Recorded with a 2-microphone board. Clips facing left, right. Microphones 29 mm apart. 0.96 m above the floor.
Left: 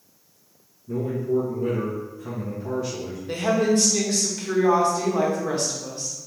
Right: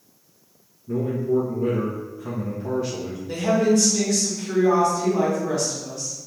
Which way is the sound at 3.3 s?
50° left (ahead or behind).